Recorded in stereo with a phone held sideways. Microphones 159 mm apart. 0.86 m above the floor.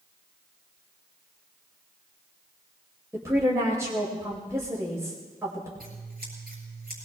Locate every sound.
3.1 s a woman speaking: 20° right (ahead or behind), 4.5 m
5.8 s scissors: 70° right (ahead or behind), 7.5 m